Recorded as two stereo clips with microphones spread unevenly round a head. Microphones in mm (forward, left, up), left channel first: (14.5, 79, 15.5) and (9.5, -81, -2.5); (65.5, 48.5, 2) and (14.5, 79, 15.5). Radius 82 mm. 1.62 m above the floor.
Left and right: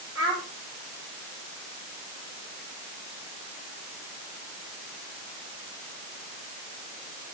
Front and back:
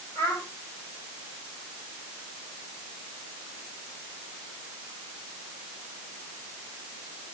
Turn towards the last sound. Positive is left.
turn(degrees=-165)